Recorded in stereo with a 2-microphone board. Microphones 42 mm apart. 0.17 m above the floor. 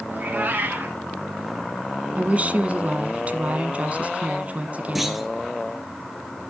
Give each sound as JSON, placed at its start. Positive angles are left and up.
{"t": 0.1, "sound": "a cat meowing", "side_deg": -45, "distance_m": 1.6}
{"t": 2.2, "sound": "a woman speaking", "side_deg": -35, "distance_m": 1.2}
{"t": 5.0, "sound": "a clunk", "side_deg": -5, "distance_m": 1.3}